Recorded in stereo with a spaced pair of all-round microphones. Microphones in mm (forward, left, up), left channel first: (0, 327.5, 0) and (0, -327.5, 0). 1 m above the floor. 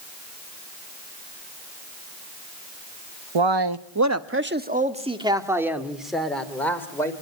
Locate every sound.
3.4 s a man speaking: 50° right (ahead or behind), 0.9 m; by 7.1 s 5° left (ahead or behind), 3.5 m